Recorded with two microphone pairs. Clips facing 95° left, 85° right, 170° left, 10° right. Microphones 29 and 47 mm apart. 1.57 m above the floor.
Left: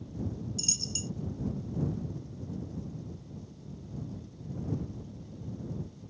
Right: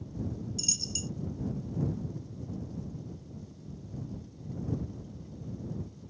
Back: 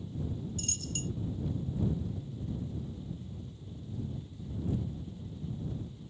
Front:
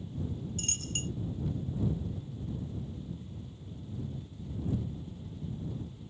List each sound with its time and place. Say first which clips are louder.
0.6 s a dropped coin: even, front 1 dB; 5° left